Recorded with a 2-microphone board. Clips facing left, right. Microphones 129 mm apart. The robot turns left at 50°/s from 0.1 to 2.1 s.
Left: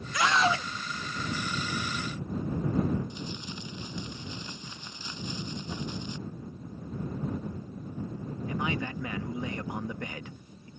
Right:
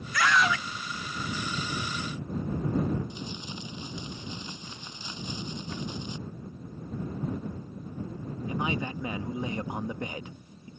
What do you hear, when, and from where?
0.1 s a scream: 20° left (ahead or behind); by 0.7 s 35° left (ahead or behind)
3.1 s crumpling: 15° right (ahead or behind)
5.7 s a cupboard door: 15° left (ahead or behind)
8.5 s a man speaking: 20° right (ahead or behind)